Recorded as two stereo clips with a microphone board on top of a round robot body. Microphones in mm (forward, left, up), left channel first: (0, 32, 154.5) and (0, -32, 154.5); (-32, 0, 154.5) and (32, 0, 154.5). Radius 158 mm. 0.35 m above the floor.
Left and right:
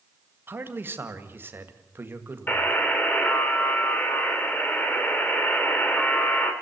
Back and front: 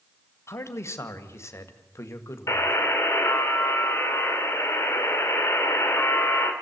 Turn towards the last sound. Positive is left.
turn(degrees=145)